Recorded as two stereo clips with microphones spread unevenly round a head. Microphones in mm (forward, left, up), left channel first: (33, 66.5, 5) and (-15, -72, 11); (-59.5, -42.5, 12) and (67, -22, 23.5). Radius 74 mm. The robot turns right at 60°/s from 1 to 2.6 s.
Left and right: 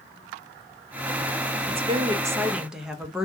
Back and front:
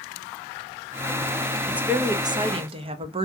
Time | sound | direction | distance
1.7 | a woman speaking | 75° right | 0.6 m